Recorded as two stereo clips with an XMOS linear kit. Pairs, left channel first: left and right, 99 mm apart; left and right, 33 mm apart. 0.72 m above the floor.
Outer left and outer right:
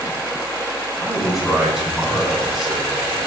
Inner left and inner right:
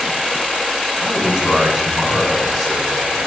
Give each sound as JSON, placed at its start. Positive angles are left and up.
{"t": 1.0, "sound": "a man speaking", "side_deg": 0, "distance_m": 5.0}